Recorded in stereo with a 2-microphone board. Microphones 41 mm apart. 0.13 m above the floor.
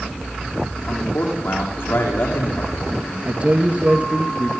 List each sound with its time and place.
0.9 s a man speaking: 80° left, 9 m
3.2 s a man speaking: 35° right (ahead or behind), 2.0 m